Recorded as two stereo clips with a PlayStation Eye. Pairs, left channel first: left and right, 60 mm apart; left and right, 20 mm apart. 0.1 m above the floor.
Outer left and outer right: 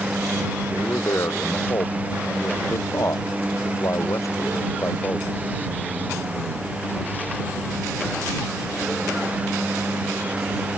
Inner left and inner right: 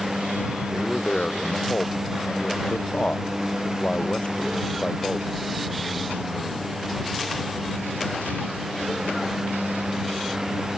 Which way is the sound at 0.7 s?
60° left (ahead or behind).